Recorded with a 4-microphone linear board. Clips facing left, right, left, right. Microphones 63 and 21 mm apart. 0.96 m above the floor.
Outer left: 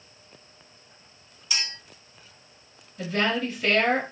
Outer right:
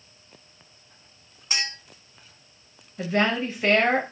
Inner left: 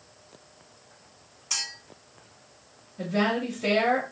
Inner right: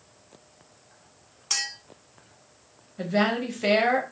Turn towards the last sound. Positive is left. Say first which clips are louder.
# outer right 2 dB, inner right 2 dB
turn(degrees=-30)  # may be behind; listen again after turning